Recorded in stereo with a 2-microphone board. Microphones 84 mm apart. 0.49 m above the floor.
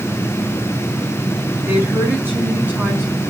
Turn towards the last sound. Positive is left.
turn(degrees=-10)  # may be behind; listen again after turning